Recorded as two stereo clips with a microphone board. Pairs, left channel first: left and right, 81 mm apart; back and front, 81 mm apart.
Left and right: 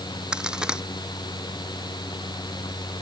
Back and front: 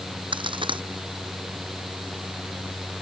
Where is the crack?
10° right.